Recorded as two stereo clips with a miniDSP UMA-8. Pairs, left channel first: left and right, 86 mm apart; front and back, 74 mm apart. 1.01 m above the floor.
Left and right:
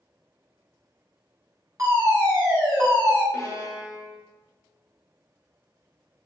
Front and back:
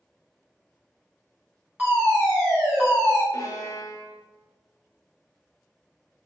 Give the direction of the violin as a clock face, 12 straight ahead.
11 o'clock.